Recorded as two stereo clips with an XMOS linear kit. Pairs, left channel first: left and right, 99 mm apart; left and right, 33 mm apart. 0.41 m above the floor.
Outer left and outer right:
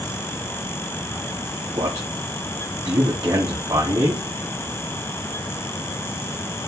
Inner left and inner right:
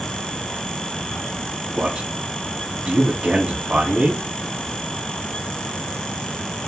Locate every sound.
1.8 s a man speaking: 45° right (ahead or behind), 3 m